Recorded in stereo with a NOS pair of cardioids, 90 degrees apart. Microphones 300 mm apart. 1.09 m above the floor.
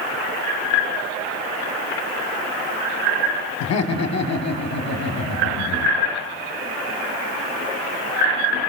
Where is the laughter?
60° left, 2.5 m.